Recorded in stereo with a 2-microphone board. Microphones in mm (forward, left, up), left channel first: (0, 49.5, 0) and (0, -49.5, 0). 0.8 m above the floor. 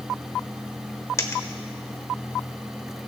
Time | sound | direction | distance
1.2 | a dropped coin | 30° left (ahead or behind) | 0.9 m